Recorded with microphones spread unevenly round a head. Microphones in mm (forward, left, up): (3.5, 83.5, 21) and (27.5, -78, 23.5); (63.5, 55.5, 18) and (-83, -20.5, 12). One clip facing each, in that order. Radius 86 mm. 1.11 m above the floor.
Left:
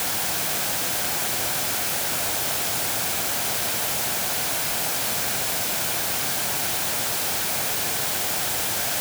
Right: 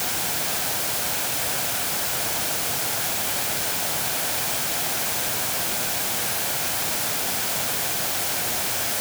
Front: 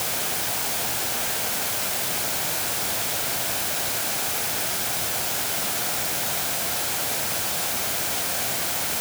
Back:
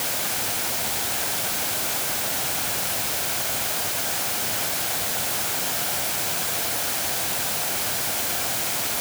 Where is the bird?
I don't hear a bird.